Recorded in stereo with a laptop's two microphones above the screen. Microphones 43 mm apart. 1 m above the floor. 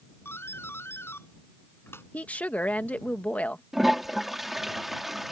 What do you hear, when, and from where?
0.2 s a doorbell: 70° left (ahead or behind)
2.1 s a woman speaking: 35° left (ahead or behind)
3.7 s a toilet flushing: 5° right (ahead or behind)